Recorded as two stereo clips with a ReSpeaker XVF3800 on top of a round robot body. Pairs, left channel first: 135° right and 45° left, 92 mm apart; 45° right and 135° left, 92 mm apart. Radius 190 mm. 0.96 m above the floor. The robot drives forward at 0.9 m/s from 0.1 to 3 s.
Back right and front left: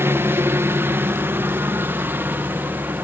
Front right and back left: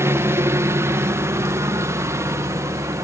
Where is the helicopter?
95° left; by 3.0 s 100° left.